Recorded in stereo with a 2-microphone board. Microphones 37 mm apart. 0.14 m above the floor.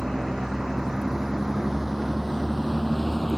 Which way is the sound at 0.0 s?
15° right (ahead or behind).